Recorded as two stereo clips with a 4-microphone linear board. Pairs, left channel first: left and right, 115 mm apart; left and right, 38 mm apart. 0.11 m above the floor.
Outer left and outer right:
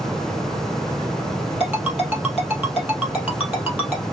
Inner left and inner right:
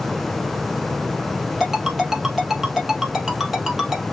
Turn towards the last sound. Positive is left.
turn(degrees=-10)  # may be behind; listen again after turning